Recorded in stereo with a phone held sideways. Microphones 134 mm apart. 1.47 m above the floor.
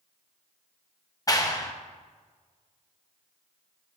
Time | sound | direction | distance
1.3 | a clap | 25° left (ahead or behind) | 1.1 m